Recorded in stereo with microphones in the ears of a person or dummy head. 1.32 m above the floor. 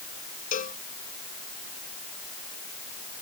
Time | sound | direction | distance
0.5 | a cowbell | 40° left (ahead or behind) | ?